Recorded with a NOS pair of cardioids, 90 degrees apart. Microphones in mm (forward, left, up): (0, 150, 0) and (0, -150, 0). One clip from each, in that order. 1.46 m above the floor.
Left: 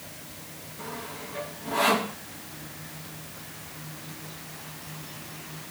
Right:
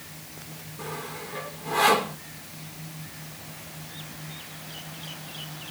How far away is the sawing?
About 1.6 m.